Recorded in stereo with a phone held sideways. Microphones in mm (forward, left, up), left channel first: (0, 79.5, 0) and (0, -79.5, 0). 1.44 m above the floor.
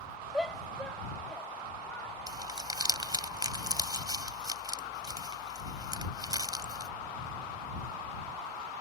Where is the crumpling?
25° right (ahead or behind).